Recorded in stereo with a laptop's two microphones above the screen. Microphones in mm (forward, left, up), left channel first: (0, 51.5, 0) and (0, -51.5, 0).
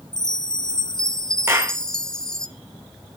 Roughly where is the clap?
Right.